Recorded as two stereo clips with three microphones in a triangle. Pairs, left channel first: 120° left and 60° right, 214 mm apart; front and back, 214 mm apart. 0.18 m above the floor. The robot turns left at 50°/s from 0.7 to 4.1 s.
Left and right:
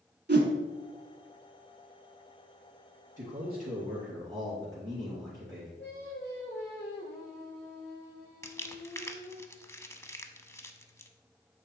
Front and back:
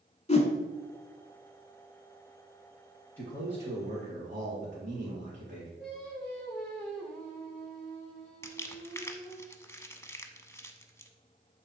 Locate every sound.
0.3 s a whoosh: 50° right, 0.9 m
3.2 s a man speaking: 105° right, 3 m; by 5.7 s 150° right, 3 m
5.8 s singing: 85° left, 3.5 m
8.4 s crumpling: 60° left, 0.6 m